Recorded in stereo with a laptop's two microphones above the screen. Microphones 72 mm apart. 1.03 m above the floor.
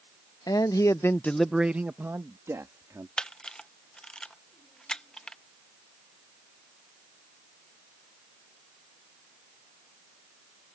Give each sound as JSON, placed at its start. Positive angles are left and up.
{"t": 0.5, "sound": "a man speaking", "side_deg": 60}
{"t": 3.2, "sound": "a camera shutter", "side_deg": 10}